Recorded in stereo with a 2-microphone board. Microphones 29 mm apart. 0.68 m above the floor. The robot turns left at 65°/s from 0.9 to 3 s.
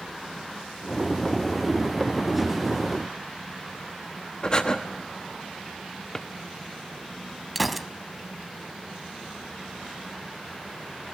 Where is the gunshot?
Centre (ahead or behind), 0.6 m.